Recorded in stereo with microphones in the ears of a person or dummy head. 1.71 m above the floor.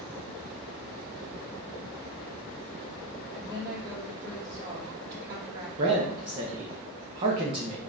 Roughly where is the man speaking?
Right.